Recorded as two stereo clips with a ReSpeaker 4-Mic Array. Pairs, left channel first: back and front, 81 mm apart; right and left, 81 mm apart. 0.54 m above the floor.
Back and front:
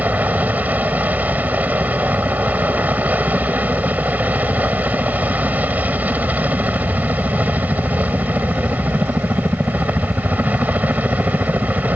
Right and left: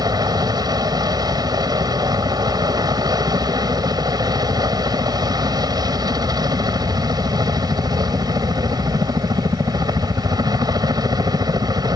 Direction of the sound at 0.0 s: 70° left.